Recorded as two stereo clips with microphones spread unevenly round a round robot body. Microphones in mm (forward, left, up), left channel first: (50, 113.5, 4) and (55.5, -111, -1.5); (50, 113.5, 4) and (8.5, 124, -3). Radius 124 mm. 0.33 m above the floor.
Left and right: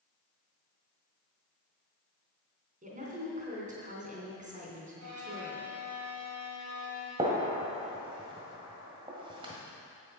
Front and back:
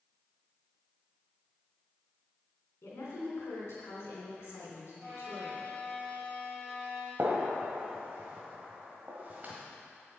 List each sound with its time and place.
2.8 s a woman speaking: 35° right, 3.5 m
5.0 s a violin: 110° right, 4 m
7.2 s a gunshot: 150° right, 1.4 m